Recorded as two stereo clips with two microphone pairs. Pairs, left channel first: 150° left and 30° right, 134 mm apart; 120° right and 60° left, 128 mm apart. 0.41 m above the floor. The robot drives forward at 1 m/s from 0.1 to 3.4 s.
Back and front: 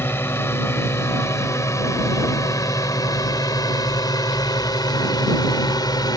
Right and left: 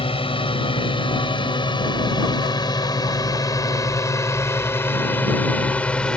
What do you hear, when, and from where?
0.0 s a drone: 140° right; by 6.2 s 160° left